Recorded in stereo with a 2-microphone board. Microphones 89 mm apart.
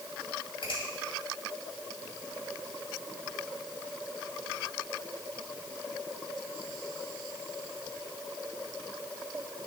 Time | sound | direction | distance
0.6 | a finger snap | 70° left (ahead or behind) | 2.5 m